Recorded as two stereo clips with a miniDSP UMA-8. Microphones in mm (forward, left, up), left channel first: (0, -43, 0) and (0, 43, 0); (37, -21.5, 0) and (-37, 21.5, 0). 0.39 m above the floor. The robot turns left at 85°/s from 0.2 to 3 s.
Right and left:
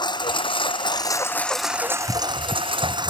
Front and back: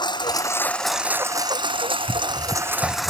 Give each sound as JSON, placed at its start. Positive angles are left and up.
{"t": 0.0, "sound": "a lawn mower", "azimuth_deg": -60}